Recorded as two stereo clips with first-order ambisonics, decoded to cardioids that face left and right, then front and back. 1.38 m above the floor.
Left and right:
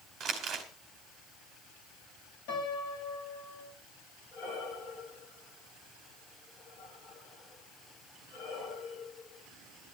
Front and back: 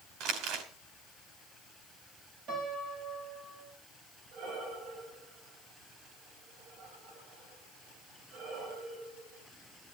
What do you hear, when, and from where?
0.2 s crumpling: 150° right, 2.5 m
2.5 s a piano: 125° left, 5.5 m
4.3 s breathing: 145° left, 5 m